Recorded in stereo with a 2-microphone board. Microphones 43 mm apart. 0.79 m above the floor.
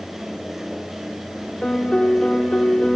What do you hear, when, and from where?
1.6 s a piano: 25° left (ahead or behind), 0.9 m